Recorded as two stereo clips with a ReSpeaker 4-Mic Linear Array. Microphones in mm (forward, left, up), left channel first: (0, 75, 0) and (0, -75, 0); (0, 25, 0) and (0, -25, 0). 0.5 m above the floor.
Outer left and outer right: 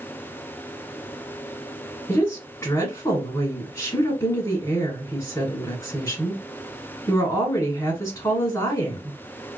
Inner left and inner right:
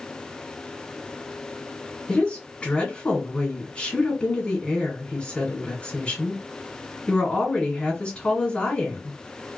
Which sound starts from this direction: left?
A woman speaking, at 2.1 s.